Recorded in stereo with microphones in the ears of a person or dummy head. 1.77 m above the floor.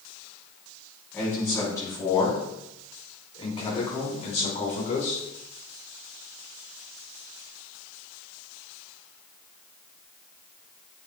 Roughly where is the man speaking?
Centre.